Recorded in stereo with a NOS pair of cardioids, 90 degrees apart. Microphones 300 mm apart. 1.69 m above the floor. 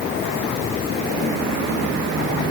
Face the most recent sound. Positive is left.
No sound to turn to.